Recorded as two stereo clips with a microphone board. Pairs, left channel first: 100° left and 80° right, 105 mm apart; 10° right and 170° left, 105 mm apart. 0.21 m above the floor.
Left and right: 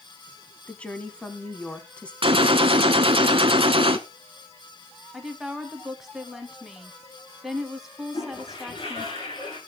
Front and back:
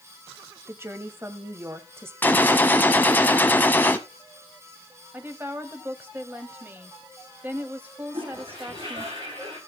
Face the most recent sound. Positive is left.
turn(degrees=130)